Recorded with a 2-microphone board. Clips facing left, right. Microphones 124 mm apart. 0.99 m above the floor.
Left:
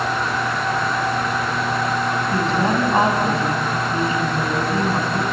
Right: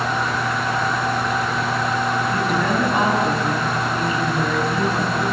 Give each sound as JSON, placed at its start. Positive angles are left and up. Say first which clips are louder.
{"t": 2.3, "sound": "a woman speaking", "louder": "left 1 dB", "side_deg": 30, "distance_m": 6.5}